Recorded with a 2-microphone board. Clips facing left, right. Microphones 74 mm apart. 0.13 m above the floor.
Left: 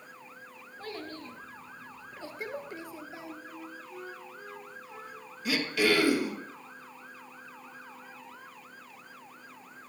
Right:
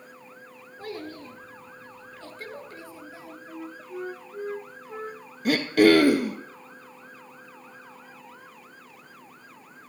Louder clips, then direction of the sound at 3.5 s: Right 5 dB; 45° right (ahead or behind).